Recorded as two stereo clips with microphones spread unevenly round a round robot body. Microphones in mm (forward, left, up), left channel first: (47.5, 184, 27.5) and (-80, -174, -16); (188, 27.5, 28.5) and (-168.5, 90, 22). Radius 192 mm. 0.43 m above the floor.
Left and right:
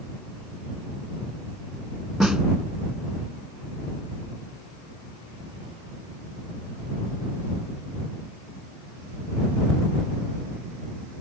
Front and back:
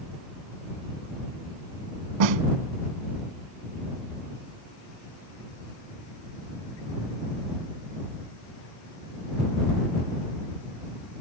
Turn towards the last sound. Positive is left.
turn(degrees=160)